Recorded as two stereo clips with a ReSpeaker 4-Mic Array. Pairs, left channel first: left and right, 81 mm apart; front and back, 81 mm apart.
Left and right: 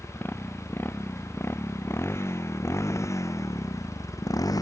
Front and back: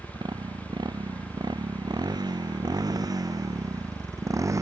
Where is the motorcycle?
155° left; by 4.6 s 130° left.